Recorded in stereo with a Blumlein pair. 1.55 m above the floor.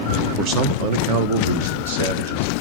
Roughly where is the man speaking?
Ahead right.